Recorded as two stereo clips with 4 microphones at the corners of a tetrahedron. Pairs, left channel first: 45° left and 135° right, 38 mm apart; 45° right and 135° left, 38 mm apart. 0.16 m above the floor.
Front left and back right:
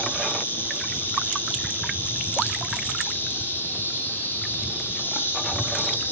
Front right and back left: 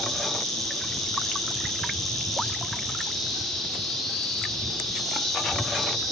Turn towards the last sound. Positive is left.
turn(degrees=40)